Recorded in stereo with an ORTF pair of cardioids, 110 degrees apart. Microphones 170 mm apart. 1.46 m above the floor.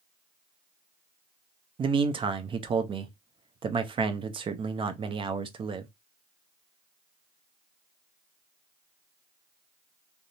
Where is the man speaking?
30° right, 0.7 m.